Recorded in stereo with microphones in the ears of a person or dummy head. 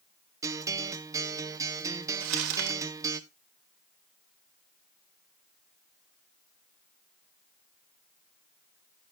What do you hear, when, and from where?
0.4 s a guitar: 15° right (ahead or behind), 0.7 m
2.2 s crumpling: 75° right (ahead or behind), 2.5 m